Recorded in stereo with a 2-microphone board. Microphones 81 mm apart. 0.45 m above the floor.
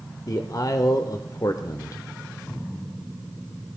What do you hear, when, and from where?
0.3 s a man speaking: 45° left (ahead or behind), 1.2 m